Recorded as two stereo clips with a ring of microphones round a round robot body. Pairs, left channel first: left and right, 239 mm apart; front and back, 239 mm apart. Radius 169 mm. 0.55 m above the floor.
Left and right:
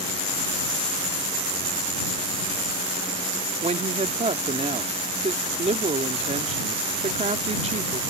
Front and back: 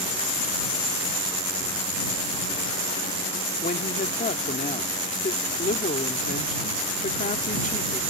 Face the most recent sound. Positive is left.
turn(degrees=-45)